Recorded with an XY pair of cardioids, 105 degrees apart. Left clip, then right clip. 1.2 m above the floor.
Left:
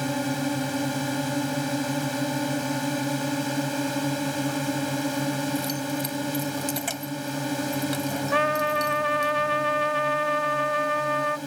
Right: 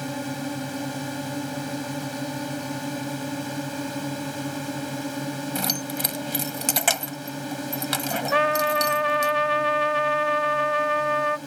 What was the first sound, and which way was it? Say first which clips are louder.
A drone: left 4 dB; 20° left.